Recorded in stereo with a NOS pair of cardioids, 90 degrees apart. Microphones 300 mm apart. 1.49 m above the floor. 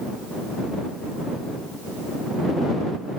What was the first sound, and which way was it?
Only background noise.